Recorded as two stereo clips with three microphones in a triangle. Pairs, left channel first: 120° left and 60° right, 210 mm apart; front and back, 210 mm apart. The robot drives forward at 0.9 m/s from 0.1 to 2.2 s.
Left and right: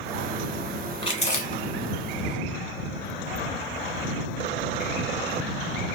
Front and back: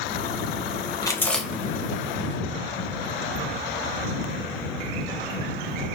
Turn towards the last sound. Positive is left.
turn(degrees=135)